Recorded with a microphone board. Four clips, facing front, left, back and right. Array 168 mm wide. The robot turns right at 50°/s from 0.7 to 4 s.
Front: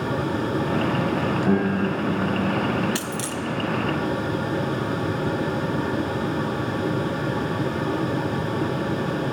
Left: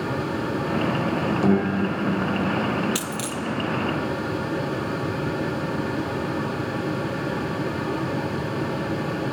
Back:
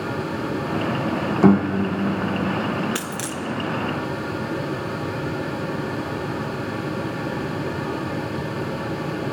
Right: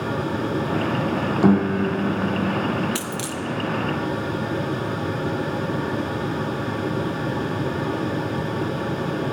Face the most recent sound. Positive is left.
turn(degrees=-130)